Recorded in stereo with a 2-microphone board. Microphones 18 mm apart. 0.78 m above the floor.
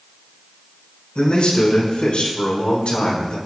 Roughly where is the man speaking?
Left.